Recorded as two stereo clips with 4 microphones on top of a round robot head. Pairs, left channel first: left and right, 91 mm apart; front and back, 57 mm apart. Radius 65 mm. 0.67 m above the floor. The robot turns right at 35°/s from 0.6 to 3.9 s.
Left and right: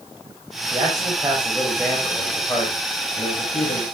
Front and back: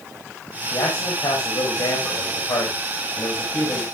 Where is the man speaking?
45° right, 5 m; by 3.8 s 65° left, 5 m.